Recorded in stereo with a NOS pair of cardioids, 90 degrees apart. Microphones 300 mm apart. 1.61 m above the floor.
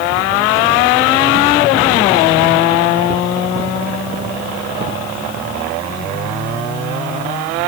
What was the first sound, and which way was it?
Only background noise.